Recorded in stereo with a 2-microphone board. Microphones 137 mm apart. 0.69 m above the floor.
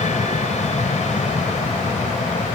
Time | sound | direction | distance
0.0 | an aircraft | 55° left (ahead or behind) | ?